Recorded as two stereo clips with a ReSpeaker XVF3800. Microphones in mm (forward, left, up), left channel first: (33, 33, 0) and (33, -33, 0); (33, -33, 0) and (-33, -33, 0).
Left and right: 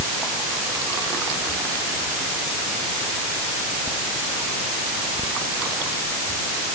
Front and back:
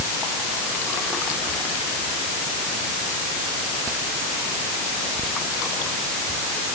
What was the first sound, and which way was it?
Only background noise.